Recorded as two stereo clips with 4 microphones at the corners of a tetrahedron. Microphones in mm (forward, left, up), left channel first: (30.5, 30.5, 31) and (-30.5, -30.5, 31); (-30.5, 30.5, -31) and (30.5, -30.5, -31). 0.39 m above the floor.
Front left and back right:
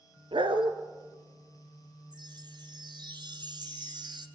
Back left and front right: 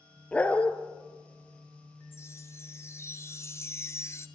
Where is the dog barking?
150° right, 1.6 m.